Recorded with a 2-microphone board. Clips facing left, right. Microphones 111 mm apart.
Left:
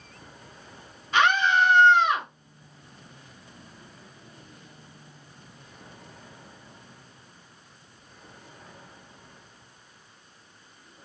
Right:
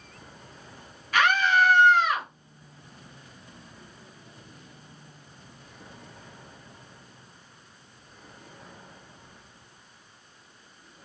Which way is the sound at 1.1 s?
25° left (ahead or behind).